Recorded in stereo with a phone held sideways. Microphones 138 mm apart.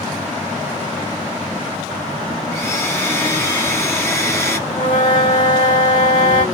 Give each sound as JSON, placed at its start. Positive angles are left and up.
{"t": 2.5, "sound": "a blender", "side_deg": 20, "distance_m": 0.8}
{"t": 4.7, "sound": "a flute", "side_deg": 70, "distance_m": 1.4}